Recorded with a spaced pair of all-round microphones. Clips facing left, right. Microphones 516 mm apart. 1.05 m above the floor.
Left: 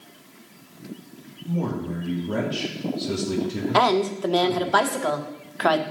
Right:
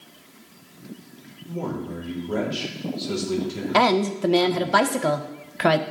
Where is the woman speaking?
45° right (ahead or behind), 0.6 m.